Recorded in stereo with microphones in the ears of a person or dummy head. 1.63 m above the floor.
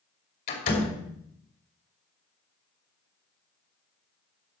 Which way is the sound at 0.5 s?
65° left (ahead or behind).